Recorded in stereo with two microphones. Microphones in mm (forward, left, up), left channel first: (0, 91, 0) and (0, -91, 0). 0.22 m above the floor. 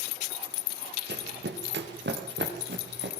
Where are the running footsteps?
75° right (ahead or behind), 3 m; by 3.1 s 80° right, 6 m.